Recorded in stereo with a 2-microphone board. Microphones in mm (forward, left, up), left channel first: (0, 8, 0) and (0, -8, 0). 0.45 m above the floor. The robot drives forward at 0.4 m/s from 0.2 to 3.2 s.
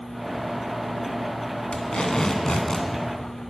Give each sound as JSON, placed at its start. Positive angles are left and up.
{"t": 1.7, "sound": "tape being pulled", "side_deg": 70, "distance_m": 1.8}